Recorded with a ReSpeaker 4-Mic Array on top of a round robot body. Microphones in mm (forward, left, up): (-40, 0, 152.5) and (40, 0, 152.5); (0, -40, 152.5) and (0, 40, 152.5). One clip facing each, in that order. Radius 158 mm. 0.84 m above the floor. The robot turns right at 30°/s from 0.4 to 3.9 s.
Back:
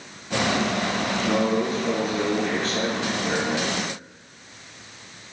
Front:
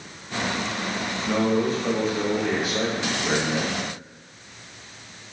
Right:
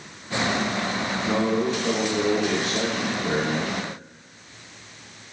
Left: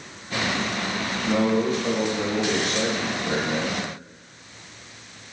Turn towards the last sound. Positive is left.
turn(degrees=-40)